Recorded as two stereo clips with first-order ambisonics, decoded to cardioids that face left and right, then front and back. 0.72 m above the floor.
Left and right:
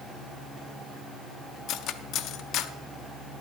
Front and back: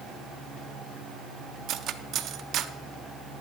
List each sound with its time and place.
1.7 s cutlery clinking: 130° left, 0.5 m